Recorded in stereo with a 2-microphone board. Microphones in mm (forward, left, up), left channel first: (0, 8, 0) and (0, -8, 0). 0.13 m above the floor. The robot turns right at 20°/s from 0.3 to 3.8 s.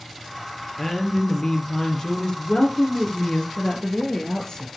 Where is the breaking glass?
No breaking glass in this recording.